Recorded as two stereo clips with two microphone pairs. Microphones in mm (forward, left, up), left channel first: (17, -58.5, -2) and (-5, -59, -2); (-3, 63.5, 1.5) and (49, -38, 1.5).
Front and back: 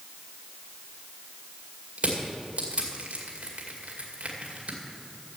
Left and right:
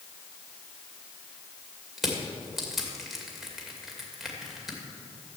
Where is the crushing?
150° right, 2 m.